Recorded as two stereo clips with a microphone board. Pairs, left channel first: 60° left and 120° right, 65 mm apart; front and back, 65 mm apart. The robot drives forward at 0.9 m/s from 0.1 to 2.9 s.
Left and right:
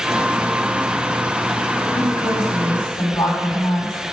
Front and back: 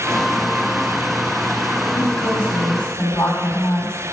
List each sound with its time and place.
1.9 s a woman speaking: 55° left, 5 m; by 4.1 s 65° left, 4.5 m